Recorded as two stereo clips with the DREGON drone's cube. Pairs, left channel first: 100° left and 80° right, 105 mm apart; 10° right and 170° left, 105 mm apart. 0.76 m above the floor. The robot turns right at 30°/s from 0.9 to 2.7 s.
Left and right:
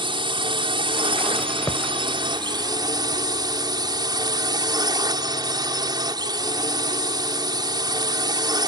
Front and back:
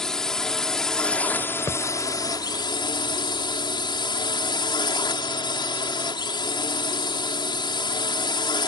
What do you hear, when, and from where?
0.0 s a drone: 95° right; by 8.7 s 40° right
1.7 s a thud: 40° left; by 1.8 s 45° left